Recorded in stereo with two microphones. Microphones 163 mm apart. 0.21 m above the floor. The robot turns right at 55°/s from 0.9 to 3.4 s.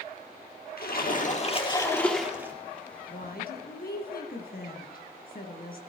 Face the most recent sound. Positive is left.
turn(degrees=65)  # may be behind; listen again after turning